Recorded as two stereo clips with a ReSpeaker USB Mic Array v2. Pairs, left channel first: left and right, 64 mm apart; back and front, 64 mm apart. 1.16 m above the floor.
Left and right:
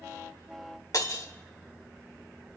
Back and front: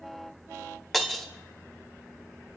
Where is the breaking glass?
95° left, 1.3 m.